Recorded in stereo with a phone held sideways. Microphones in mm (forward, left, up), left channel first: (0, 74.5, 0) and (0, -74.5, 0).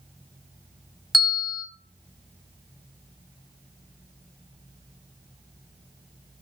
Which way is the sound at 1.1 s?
Centre (ahead or behind).